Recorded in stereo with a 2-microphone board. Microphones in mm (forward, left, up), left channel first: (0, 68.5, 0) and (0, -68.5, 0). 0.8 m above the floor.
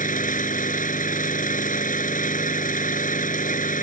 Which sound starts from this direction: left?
An engine running, at 0.0 s.